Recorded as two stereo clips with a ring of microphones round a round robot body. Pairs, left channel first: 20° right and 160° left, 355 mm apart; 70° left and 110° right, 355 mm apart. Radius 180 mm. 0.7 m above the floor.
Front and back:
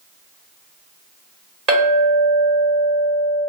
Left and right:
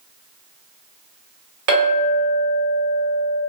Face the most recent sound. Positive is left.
turn(degrees=-125)